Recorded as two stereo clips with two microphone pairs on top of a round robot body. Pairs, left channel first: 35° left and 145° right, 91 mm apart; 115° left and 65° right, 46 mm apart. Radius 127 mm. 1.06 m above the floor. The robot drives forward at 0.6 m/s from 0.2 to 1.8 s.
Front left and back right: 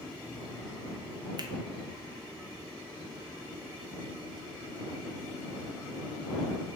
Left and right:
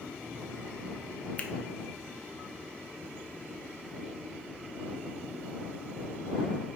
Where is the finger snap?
170° left, 0.7 m.